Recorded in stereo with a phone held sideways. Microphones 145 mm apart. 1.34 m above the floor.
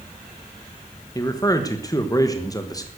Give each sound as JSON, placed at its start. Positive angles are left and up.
{"t": 1.1, "sound": "a man speaking", "side_deg": 25, "distance_m": 1.3}